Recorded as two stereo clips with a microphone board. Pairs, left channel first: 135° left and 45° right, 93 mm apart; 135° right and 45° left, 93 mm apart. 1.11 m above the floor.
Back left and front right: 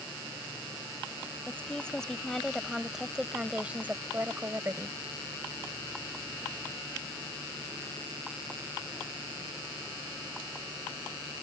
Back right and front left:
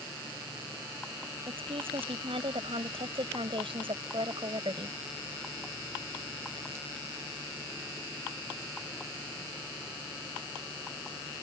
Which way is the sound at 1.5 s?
60° left.